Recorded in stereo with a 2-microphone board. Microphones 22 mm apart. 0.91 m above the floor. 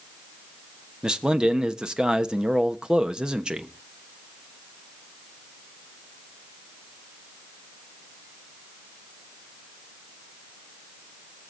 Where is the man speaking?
45° right (ahead or behind), 1.0 m.